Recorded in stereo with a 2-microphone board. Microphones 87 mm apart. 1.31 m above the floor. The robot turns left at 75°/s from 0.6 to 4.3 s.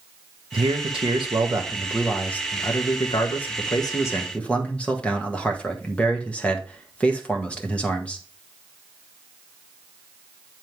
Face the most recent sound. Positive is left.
turn(degrees=15)